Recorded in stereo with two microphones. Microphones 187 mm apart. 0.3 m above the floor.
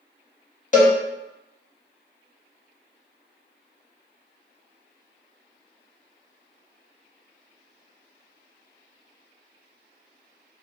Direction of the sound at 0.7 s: 40° left (ahead or behind).